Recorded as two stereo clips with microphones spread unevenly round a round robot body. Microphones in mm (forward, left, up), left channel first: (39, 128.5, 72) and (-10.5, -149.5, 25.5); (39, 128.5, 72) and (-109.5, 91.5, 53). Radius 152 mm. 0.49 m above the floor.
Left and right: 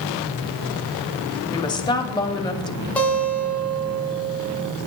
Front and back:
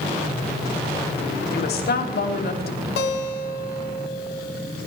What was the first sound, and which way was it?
A woman speaking, straight ahead.